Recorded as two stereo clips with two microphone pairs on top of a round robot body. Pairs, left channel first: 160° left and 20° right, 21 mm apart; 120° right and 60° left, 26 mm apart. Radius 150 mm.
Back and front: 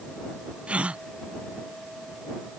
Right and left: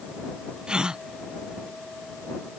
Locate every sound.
0.7 s a gasp: straight ahead